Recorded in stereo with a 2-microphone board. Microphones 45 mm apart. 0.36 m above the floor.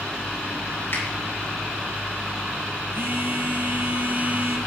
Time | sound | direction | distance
0.9 | a finger snap | 55° left (ahead or behind) | 3 m
2.9 | a phone buzzing | 55° right (ahead or behind) | 1.9 m